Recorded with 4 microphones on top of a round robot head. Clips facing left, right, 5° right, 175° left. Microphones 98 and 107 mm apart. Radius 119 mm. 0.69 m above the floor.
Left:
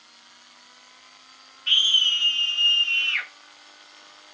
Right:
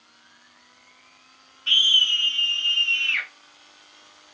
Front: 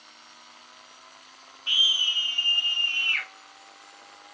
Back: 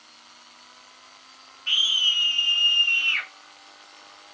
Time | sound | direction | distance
1.7 | a scream | 65° right | 0.6 m